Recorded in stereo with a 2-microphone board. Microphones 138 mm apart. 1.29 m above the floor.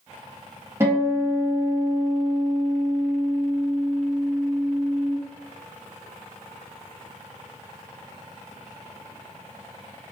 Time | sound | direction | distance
0.8 | a guitar | 20° right (ahead or behind) | 1.3 m